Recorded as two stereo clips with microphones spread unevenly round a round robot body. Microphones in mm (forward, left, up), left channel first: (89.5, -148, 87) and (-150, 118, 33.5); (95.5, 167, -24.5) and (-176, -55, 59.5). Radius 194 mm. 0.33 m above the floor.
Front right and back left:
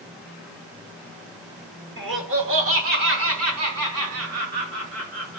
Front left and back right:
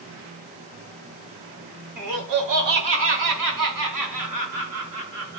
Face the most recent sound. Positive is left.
turn(degrees=180)